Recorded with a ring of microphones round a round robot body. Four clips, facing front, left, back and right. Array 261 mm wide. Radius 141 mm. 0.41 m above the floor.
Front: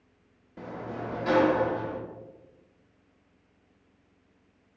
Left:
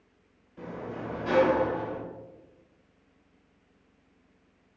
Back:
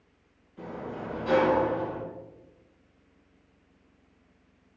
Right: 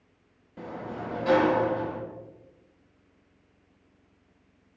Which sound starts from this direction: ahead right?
A sliding door, at 0.6 s.